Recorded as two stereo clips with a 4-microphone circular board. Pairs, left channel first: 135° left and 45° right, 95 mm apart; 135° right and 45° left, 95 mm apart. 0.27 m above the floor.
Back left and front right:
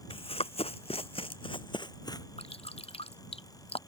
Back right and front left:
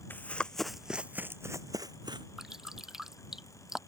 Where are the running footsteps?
155° left; by 2.3 s 85° left.